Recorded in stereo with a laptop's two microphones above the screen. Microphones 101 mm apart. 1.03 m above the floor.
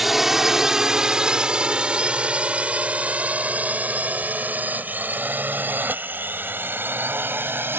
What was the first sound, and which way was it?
A drone, 5° right (ahead or behind).